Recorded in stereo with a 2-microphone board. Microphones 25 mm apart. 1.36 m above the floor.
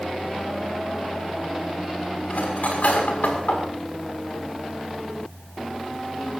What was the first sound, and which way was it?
Cutlery clinking, 80° left.